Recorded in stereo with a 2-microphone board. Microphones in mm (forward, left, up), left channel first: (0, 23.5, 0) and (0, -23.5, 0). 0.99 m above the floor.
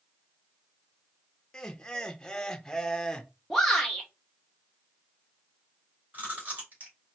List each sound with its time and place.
1.5 s laughter: 15° left (ahead or behind), 0.7 m
3.5 s a shout: 5° left (ahead or behind), 0.7 m
6.1 s chewing: 35° right (ahead or behind), 3 m